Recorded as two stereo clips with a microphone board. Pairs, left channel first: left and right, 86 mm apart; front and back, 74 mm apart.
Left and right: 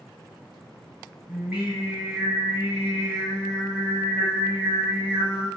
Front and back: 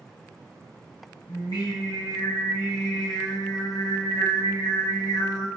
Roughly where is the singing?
Ahead right.